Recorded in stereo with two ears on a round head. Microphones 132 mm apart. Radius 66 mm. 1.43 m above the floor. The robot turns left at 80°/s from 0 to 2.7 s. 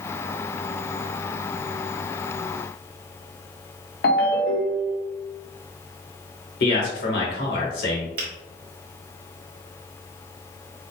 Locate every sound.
4.0 s a ringtone: 70° left (ahead or behind), 1.4 m
6.6 s a man speaking: 75° left (ahead or behind), 2 m
8.2 s a finger snap: 65° right (ahead or behind), 1.7 m